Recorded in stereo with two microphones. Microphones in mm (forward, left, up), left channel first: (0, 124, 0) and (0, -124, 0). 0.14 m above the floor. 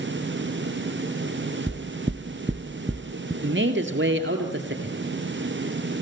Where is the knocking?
15° right (ahead or behind), 1.1 m.